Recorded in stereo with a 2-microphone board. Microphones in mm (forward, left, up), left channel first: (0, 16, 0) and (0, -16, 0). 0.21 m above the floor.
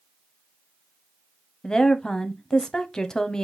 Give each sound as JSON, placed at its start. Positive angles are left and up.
{"t": 1.6, "sound": "a woman speaking", "side_deg": 20, "distance_m": 0.9}